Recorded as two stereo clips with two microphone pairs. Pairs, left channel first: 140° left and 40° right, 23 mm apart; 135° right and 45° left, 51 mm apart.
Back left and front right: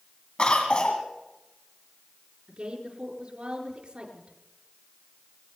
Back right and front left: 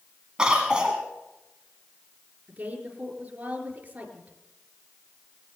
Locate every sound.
0.4 s a cough: 115° left, 1.7 m
2.5 s a woman speaking: 15° right, 4 m